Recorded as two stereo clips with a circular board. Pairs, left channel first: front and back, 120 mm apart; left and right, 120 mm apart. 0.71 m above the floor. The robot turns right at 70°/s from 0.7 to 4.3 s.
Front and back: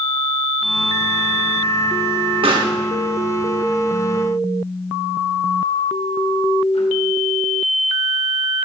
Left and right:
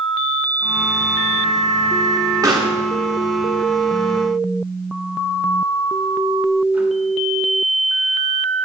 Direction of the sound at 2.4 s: 145° right.